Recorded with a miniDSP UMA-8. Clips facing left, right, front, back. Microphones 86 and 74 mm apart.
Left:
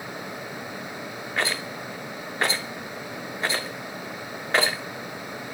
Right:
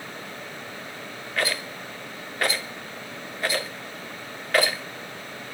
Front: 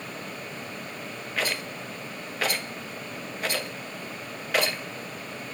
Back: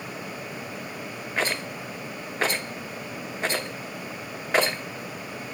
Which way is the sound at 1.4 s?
140° left.